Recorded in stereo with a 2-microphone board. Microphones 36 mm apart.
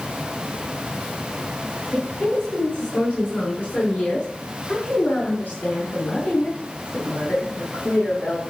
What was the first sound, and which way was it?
A woman speaking, 25° left (ahead or behind).